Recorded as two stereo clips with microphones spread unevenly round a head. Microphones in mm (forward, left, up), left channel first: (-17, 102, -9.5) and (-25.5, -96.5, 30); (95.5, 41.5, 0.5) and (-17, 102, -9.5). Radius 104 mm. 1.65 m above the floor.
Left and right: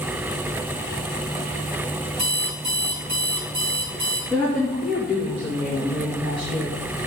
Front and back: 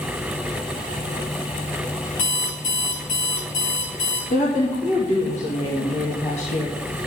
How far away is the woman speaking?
About 2.0 m.